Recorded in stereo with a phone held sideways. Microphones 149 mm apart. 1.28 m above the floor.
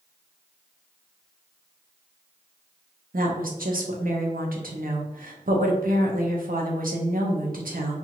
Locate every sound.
3.1 s a woman speaking: 85° right, 0.8 m